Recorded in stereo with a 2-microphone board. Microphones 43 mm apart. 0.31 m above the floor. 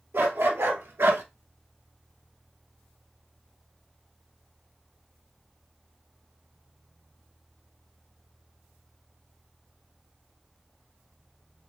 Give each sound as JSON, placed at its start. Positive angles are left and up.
{"t": 0.1, "sound": "a dog barking", "side_deg": -70, "distance_m": 1.8}